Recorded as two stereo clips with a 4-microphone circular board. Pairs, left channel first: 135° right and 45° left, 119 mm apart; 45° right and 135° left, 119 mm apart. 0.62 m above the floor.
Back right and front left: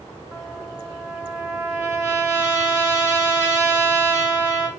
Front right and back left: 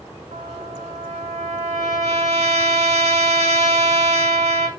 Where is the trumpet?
110° left, 1.0 m.